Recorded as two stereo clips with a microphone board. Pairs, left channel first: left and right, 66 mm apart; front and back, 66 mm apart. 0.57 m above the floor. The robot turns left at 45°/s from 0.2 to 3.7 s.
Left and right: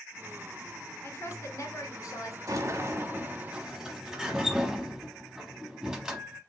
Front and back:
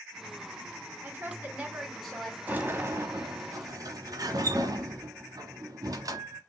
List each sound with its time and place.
1.0 s a woman speaking: 135° left, 1.9 m; by 2.4 s 70° left, 1.9 m
2.5 s a sliding door: 115° right, 0.8 m; by 6.4 s 170° right, 0.8 m